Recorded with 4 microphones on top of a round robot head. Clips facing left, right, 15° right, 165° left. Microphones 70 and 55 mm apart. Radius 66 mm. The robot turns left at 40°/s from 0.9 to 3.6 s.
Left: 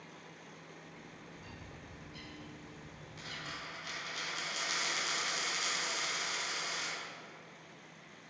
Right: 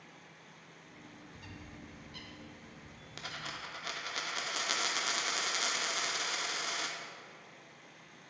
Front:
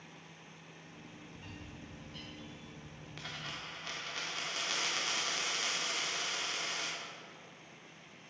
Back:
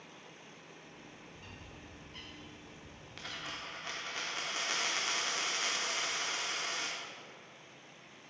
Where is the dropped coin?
100° right, 0.6 m; by 7.0 s 120° right, 0.6 m.